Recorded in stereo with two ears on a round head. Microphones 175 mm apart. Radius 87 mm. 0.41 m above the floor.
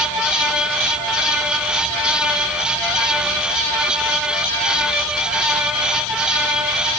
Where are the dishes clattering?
I don't hear dishes clattering.